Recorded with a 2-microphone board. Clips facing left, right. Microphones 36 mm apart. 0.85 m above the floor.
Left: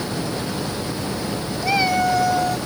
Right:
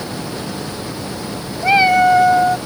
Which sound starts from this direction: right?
A cat meowing, at 1.6 s.